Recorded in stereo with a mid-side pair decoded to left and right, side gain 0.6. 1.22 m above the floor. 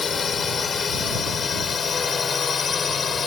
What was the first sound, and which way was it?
A drone, 30° left.